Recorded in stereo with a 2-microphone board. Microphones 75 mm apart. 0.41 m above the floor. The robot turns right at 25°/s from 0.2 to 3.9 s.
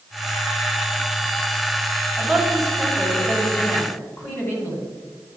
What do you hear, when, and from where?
2.2 s a woman speaking: 10° right, 3 m; by 4.8 s 35° left, 3 m